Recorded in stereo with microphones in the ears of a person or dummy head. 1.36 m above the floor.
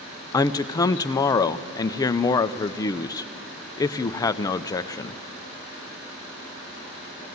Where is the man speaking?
25° left (ahead or behind), 0.5 m.